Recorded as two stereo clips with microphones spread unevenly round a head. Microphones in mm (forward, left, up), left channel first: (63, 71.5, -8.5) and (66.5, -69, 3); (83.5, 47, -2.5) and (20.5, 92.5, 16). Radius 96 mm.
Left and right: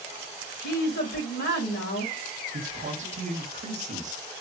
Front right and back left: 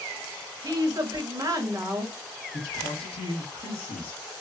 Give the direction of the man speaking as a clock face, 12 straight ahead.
2 o'clock.